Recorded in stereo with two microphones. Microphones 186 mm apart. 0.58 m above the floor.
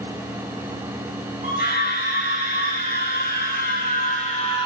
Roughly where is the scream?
Left.